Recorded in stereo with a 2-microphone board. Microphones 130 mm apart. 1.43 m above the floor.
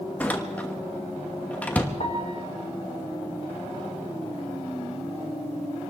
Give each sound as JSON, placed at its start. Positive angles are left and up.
{"t": 0.2, "sound": "a door slam", "side_deg": 10, "distance_m": 1.3}
{"t": 2.0, "sound": "a piano", "side_deg": 60, "distance_m": 1.6}